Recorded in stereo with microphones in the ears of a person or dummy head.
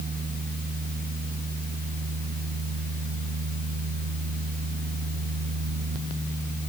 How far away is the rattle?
I don't hear a rattle.